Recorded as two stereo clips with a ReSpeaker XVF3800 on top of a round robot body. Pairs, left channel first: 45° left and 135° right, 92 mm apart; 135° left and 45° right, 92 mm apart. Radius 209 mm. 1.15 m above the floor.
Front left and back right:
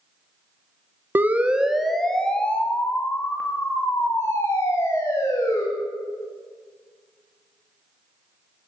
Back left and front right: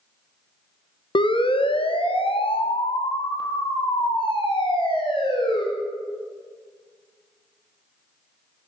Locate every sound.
1.1 s a siren: 160° left, 2 m; by 5.6 s 105° left, 6.5 m